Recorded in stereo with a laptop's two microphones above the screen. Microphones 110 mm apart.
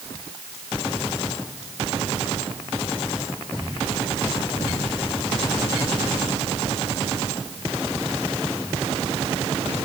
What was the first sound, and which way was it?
Only background noise.